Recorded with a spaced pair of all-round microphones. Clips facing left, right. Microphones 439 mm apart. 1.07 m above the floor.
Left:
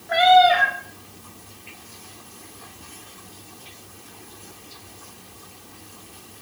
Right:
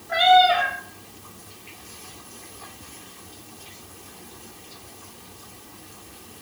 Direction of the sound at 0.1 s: 80° left.